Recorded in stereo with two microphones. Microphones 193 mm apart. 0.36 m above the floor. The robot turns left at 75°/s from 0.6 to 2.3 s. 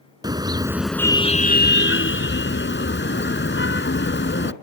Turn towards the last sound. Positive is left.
turn(degrees=70)